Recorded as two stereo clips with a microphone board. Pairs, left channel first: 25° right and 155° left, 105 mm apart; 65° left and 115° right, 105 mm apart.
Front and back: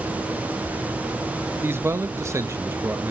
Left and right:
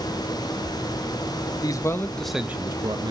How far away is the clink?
No clink in this recording.